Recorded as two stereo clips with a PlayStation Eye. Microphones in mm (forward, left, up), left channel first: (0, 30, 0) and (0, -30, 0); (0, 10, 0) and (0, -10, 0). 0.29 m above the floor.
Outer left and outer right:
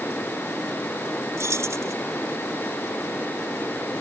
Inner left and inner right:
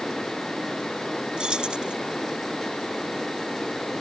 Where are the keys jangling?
55° right (ahead or behind).